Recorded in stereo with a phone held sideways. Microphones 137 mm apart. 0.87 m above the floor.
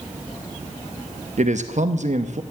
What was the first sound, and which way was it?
A man speaking, 60° right (ahead or behind).